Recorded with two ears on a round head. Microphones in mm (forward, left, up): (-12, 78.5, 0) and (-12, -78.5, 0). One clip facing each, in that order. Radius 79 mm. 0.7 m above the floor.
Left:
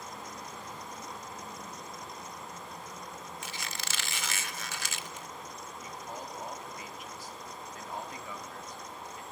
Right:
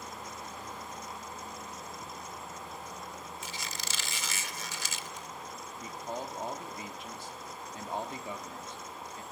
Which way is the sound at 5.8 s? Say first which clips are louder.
Right 5 dB; 25° right (ahead or behind).